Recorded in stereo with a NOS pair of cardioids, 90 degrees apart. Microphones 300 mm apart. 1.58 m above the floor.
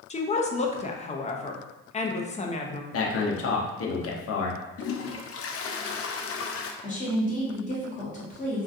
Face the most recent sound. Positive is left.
turn(degrees=25)